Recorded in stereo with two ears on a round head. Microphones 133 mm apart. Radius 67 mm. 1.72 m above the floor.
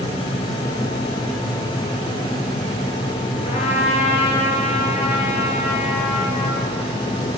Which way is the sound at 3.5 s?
45° left (ahead or behind).